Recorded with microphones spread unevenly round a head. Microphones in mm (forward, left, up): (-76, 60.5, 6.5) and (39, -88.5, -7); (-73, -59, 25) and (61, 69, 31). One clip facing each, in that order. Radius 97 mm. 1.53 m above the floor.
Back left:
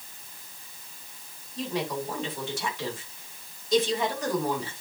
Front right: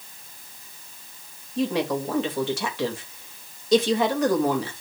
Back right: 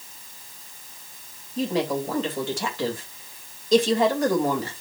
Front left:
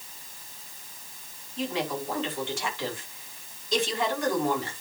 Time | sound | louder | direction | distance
1.6 | a woman speaking | front right 7 dB, back right 6 dB | 85° right | 3 m